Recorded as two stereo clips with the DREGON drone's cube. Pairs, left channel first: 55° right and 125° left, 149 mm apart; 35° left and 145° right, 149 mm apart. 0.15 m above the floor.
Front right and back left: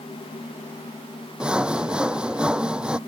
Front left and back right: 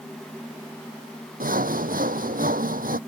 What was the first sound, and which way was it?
Sawing, 155° right.